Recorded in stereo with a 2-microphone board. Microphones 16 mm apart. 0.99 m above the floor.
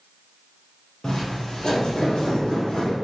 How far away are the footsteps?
About 1.5 m.